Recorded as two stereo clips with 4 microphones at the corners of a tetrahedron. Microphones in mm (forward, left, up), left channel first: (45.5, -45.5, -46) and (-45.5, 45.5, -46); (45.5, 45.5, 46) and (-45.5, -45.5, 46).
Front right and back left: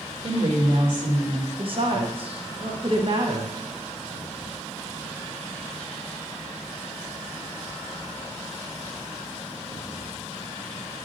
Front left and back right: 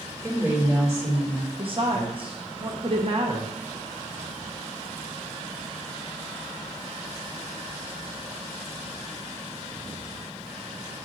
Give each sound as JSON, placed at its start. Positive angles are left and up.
{"t": 0.2, "sound": "a woman speaking", "azimuth_deg": 160, "distance_m": 2.5}
{"t": 1.6, "sound": "a woman speaking", "azimuth_deg": 180, "distance_m": 0.9}